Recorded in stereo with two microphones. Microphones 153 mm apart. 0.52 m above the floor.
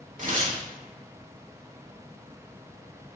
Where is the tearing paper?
55° right (ahead or behind), 1.2 m.